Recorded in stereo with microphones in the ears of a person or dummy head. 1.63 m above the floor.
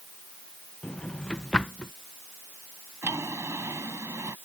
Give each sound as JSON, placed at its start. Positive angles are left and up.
{"t": 0.8, "sound": "a drawer", "side_deg": 5}
{"t": 3.0, "sound": "a drawer", "side_deg": -15}